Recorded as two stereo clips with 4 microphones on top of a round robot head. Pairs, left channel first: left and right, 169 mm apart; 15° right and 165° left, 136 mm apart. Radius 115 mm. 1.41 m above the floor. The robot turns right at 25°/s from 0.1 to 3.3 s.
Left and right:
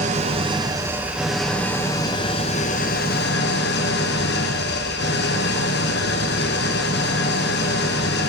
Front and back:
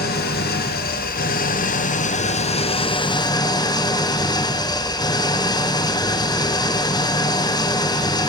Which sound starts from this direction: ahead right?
An engine running, at 0.0 s.